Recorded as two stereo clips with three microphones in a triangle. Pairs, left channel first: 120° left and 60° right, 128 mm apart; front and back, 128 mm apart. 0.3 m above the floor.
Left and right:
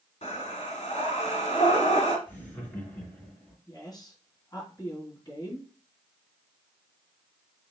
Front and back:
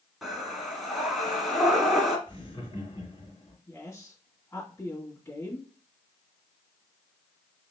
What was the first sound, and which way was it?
Breathing, 90° left.